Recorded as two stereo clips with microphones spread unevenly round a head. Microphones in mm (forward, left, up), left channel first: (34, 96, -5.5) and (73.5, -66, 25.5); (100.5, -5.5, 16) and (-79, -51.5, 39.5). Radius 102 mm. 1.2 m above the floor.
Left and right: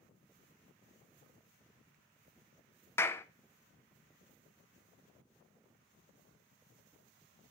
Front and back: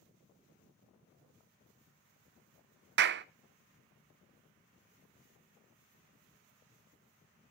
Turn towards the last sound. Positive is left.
turn(degrees=170)